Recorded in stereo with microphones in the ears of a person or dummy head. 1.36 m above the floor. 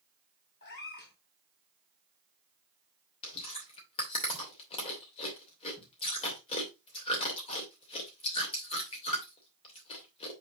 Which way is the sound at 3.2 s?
30° left (ahead or behind).